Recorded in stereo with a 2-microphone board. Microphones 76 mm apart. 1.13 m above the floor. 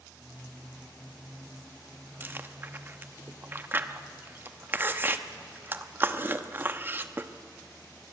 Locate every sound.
2.2 s chewing: 25° right (ahead or behind), 0.8 m